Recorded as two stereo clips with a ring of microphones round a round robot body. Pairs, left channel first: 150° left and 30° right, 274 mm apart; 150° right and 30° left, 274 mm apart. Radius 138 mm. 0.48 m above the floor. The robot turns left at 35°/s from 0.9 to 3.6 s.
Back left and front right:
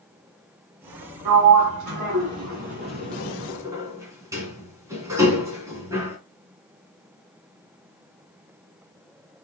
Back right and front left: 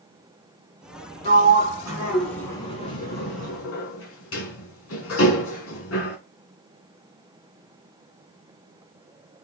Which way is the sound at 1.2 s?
25° right.